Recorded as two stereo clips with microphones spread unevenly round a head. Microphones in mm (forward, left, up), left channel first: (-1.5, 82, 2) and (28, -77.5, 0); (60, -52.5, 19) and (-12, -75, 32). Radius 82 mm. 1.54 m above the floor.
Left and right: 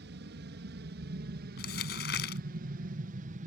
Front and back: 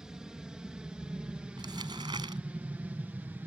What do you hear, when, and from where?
0.0 s an aircraft: 80° right; by 3.5 s 100° right
1.6 s crumpling: 135° left